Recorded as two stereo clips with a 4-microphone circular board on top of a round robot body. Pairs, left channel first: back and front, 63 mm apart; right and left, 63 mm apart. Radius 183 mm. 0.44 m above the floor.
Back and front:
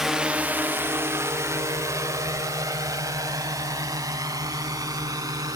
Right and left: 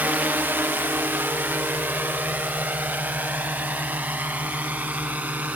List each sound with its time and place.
0.0 s a drone: 80° left; by 5.6 s 25° left